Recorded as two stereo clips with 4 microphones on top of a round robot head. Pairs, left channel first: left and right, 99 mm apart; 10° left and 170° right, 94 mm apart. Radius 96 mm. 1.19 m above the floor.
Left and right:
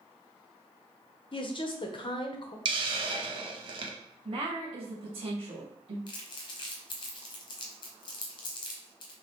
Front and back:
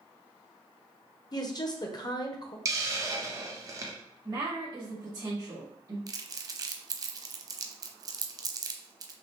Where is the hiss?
115° right, 0.8 m.